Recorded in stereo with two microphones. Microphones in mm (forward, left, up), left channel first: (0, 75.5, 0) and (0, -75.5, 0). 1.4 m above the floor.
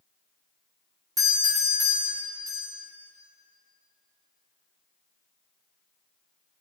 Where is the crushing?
I don't hear crushing.